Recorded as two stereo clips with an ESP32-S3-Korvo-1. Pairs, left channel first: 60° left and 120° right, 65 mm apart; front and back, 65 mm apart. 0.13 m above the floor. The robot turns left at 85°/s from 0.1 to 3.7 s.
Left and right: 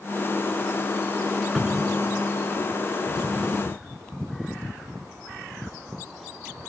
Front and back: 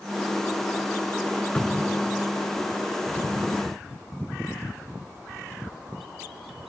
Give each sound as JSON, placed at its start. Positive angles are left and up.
{"t": 1.6, "sound": "a cupboard door", "azimuth_deg": -40, "distance_m": 1.3}